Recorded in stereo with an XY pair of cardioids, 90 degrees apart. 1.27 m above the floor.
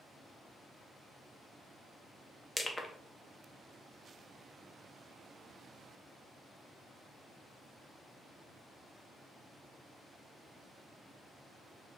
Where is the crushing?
20° left, 0.5 m.